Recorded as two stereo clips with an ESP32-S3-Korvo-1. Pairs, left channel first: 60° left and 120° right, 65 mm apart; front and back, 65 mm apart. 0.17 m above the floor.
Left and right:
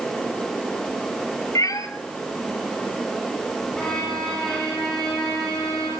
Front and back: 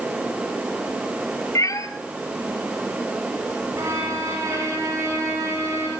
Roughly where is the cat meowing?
Ahead left.